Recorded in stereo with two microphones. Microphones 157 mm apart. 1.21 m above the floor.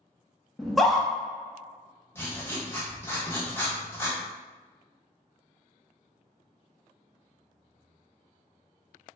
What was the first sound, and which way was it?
A scream, centre (ahead or behind).